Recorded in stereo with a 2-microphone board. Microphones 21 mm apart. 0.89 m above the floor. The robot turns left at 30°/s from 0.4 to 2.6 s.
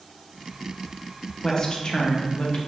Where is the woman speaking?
145° left, 0.5 m; by 2.6 s 110° left, 0.5 m.